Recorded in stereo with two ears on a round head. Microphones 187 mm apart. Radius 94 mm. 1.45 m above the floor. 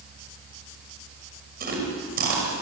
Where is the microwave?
No microwave in this recording.